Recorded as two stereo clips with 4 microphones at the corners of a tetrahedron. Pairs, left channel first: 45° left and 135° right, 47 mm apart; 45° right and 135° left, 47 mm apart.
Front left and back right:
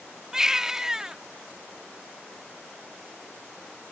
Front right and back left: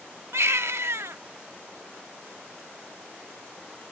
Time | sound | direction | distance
0.3 | a baby crying | 145° left | ?